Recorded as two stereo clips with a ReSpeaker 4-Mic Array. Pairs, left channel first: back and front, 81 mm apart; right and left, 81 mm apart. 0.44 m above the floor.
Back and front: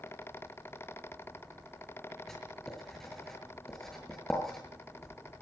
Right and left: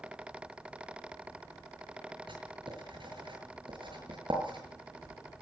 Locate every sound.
2.3 s writing: 95° left, 6 m